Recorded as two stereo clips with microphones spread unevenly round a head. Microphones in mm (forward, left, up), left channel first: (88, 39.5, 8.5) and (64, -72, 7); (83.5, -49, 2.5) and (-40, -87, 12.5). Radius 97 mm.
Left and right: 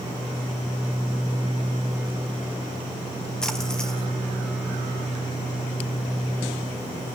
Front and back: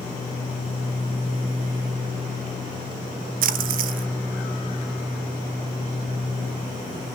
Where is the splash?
165° left, 0.6 m.